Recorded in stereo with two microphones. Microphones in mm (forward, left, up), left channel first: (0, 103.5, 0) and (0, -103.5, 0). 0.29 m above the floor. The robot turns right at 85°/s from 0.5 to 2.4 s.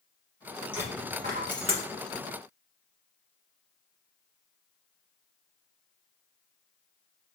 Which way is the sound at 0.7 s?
5° right (ahead or behind).